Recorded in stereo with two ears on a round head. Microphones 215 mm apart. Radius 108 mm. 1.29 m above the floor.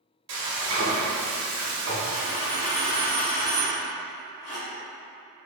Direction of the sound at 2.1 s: 45° left (ahead or behind).